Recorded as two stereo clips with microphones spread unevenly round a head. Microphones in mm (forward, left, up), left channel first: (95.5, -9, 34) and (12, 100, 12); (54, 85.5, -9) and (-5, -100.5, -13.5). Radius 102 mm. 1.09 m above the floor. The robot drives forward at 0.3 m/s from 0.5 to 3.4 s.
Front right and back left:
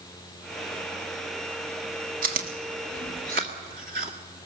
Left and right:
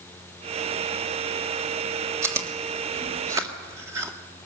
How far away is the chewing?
About 1.2 m.